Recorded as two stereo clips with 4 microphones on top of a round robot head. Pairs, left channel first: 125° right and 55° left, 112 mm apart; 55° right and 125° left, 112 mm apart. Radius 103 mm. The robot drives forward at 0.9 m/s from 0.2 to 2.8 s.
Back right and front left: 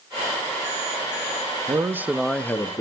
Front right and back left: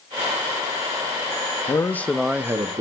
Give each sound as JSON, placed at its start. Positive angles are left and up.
{"t": 1.7, "sound": "a man speaking", "azimuth_deg": 0, "distance_m": 0.7}